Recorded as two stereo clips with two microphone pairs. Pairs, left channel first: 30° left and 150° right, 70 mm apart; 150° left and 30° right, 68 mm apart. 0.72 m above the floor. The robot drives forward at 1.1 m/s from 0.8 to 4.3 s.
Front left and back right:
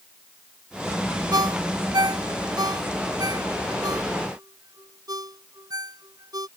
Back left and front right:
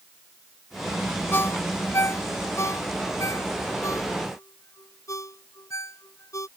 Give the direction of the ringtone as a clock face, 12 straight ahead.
5 o'clock.